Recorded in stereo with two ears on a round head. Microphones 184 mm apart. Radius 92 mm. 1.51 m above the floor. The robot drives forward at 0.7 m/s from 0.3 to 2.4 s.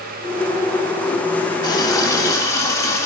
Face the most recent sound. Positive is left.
turn(degrees=15)  # may be behind; listen again after turning